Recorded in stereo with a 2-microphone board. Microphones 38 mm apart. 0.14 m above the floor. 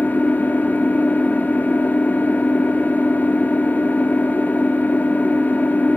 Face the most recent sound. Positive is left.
turn(degrees=50)  # may be behind; listen again after turning